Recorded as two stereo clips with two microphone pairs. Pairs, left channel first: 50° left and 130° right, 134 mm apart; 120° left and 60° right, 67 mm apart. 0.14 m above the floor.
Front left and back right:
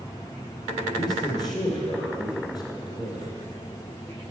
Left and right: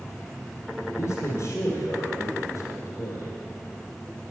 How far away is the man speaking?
About 2.0 m.